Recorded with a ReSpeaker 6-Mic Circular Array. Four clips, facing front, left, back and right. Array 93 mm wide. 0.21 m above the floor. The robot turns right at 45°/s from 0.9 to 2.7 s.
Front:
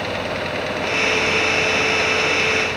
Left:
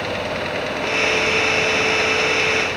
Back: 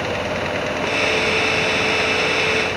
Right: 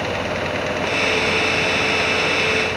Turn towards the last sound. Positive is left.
No sound to turn to.